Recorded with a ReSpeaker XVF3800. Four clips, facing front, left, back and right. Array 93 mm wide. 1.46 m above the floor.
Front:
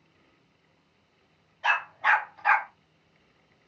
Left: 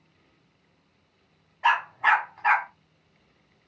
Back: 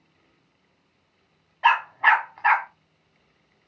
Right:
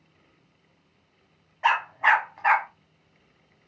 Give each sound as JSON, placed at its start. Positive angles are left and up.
{"t": 1.6, "sound": "a dog barking", "azimuth_deg": -155, "distance_m": 1.3}